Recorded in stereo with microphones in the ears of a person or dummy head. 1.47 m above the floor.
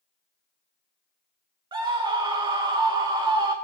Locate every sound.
1.7 s a scream: 25° right (ahead or behind), 1.2 m